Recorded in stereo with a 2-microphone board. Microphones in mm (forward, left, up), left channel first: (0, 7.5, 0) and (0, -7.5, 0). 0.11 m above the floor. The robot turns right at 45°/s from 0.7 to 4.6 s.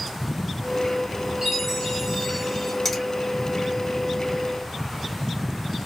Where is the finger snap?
20° left (ahead or behind), 1.9 m; by 3.0 s 25° left (ahead or behind), 1.9 m.